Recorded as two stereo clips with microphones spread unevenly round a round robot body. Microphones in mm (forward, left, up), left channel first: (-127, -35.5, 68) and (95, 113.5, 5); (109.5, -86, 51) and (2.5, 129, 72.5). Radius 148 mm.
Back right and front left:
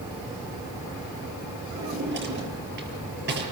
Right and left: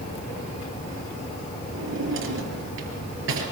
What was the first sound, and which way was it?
A drawer, 85° left.